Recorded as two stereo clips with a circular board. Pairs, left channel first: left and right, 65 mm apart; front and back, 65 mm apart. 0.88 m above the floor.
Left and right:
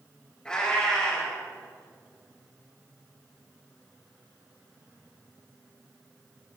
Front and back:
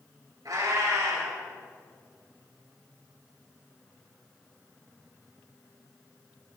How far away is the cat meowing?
About 4 m.